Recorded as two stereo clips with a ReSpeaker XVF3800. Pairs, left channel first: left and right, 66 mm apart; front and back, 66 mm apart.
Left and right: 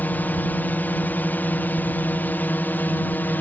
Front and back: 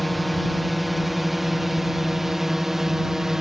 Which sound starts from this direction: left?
A drone, at 0.0 s.